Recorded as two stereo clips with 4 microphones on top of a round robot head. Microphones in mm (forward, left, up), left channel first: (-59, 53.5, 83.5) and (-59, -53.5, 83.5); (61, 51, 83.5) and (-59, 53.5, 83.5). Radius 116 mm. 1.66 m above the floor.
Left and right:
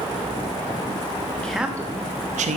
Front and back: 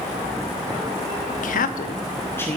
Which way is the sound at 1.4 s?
5° left.